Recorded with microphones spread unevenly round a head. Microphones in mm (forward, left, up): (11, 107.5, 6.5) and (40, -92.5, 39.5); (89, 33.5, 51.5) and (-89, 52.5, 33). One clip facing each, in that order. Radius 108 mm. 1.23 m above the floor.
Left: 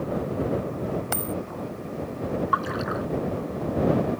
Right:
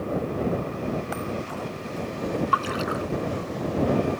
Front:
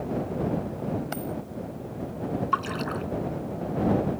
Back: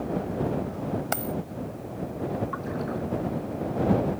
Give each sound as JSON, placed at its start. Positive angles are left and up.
{"t": 1.1, "sound": "a dropped coin", "azimuth_deg": 145}
{"t": 2.5, "sound": "a splash", "azimuth_deg": -35}